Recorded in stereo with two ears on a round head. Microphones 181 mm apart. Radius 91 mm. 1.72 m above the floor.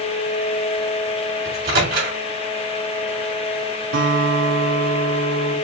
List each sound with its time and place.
1.4 s a microwave: 45° right (ahead or behind), 3 m
3.9 s a guitar: 70° right (ahead or behind), 3.5 m